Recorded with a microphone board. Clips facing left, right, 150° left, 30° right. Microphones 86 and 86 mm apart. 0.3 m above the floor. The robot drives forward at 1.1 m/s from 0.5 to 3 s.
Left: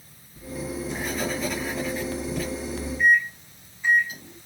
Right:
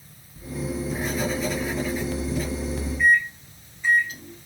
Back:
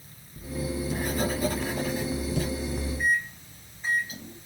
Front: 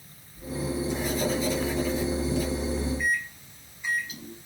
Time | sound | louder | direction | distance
0.4 | writing | right 2 dB, front 1 dB | 175° right | 5 m
3.0 | a microwave | even, back 2 dB | 155° left | 1.4 m